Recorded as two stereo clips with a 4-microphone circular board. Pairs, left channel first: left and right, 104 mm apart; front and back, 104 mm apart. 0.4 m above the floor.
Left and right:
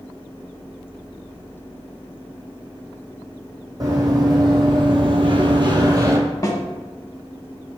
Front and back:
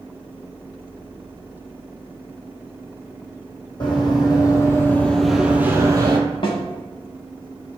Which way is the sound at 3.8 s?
40° right.